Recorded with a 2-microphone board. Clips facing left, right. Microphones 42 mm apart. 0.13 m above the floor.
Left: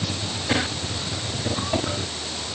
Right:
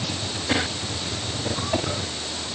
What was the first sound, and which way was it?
Only background noise.